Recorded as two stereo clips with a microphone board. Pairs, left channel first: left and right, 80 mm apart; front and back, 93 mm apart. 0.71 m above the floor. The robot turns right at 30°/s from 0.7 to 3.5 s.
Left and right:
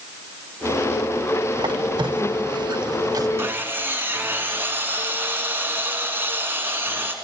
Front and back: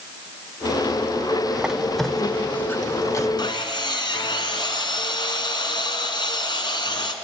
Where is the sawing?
30° right, 1.4 m.